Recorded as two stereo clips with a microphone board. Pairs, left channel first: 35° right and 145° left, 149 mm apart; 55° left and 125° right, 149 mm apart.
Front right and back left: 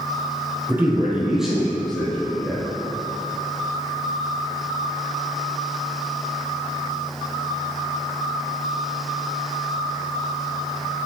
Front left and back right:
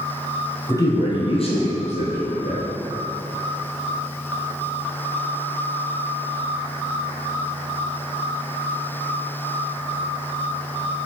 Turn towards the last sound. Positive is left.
turn(degrees=50)